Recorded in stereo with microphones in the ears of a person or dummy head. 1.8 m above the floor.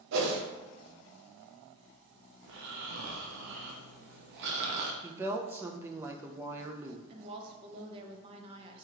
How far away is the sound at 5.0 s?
About 0.6 m.